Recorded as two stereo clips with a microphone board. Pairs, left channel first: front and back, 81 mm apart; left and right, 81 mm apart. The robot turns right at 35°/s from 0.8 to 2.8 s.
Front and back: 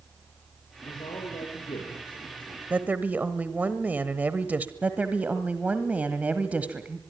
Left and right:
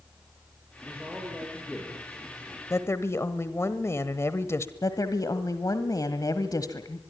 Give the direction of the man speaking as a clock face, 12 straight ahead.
1 o'clock.